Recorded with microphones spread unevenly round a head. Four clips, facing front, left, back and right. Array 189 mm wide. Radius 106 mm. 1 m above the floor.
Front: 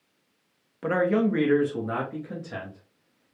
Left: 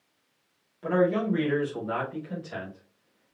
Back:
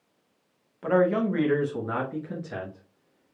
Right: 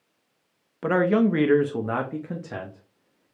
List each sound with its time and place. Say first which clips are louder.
0.8 s a man speaking: right 4 dB, back 1 dB; 55° right, 1.0 m; by 3.4 s 125° right, 1.6 m